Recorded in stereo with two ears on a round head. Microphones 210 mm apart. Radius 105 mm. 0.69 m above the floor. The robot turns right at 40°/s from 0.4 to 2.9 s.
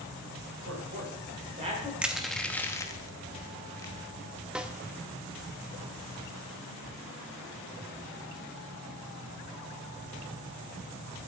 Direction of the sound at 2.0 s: 5° right (ahead or behind).